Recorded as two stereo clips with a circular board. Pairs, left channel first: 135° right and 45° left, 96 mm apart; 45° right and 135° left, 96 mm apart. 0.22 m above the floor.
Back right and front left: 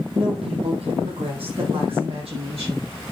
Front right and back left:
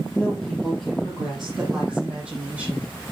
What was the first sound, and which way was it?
A woman speaking, 35° left.